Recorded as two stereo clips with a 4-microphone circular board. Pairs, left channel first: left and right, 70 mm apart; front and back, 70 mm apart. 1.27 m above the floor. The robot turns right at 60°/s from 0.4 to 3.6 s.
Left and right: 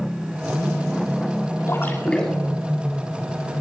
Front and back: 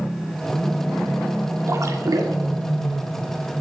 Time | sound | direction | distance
1.7 | a splash | 135° left | 2.5 m